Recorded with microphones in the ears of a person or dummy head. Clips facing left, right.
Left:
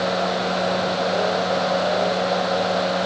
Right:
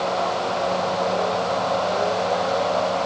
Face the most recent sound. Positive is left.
No sound to turn to.